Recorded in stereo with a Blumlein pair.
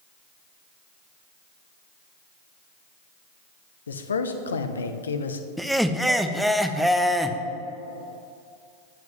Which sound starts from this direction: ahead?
Laughter, at 5.6 s.